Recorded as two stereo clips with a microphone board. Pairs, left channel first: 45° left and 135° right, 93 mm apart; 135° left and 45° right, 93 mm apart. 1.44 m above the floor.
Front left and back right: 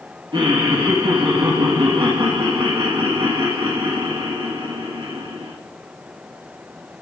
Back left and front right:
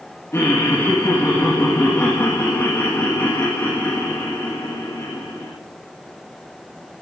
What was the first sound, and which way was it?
Laughter, 165° right.